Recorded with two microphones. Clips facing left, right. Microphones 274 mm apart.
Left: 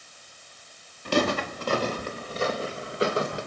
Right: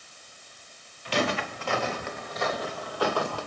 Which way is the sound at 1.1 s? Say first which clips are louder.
Left 4 dB; 55° left (ahead or behind).